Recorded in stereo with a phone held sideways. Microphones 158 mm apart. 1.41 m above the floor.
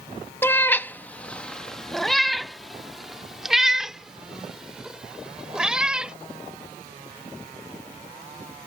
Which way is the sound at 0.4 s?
15° left (ahead or behind).